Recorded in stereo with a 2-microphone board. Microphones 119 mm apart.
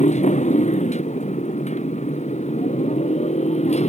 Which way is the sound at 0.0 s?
80° left.